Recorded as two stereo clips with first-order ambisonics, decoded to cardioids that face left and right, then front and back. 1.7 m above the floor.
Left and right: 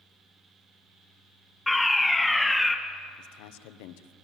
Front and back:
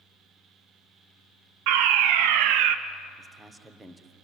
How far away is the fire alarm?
About 1.1 m.